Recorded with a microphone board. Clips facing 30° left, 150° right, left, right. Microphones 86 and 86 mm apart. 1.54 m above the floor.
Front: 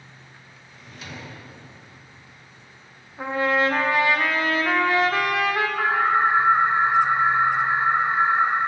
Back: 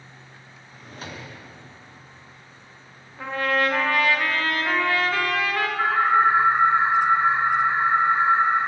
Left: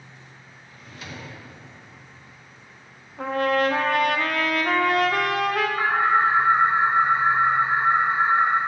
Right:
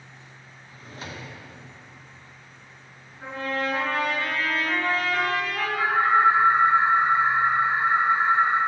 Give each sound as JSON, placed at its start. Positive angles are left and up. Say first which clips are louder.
{"t": 0.7, "sound": "a drawer", "louder": "back 2 dB, right 1 dB", "azimuth_deg": -130, "distance_m": 0.8}
{"t": 3.2, "sound": "a trumpet", "louder": "front 2 dB, left 7 dB", "azimuth_deg": 100, "distance_m": 0.5}
{"t": 5.8, "sound": "an alarm", "louder": "back 2 dB, right 2 dB", "azimuth_deg": 35, "distance_m": 1.4}